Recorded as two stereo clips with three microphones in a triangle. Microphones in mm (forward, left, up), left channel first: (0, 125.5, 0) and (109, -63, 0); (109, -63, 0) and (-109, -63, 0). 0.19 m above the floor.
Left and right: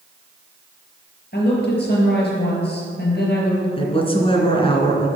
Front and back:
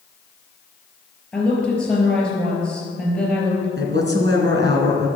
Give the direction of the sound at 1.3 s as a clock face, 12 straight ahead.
9 o'clock.